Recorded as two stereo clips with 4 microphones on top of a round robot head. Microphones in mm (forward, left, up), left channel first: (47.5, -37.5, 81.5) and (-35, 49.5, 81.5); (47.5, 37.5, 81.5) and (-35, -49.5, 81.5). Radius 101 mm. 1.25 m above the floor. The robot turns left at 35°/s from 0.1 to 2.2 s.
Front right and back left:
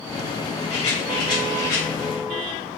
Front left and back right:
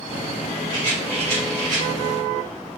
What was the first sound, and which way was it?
A rattle, 80° right.